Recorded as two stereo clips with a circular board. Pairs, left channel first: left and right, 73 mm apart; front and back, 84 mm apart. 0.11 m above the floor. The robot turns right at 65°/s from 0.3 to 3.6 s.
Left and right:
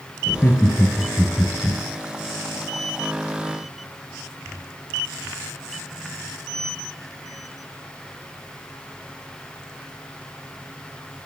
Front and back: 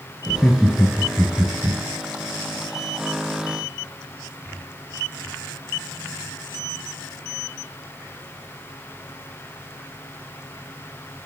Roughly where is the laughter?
Ahead left.